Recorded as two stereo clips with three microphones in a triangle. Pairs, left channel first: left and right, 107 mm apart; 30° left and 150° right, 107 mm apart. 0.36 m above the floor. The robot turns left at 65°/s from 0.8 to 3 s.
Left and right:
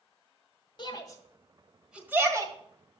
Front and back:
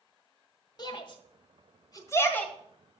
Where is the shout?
65° left, 1.7 m; by 2.5 s 50° right, 1.7 m.